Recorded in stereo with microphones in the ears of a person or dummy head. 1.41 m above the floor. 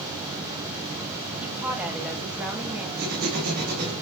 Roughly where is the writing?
Right.